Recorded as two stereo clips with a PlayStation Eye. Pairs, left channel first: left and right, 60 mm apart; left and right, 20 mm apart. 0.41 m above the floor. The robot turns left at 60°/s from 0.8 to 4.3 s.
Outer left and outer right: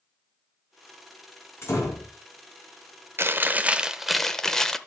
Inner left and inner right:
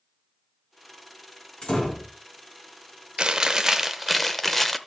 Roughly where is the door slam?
Behind left.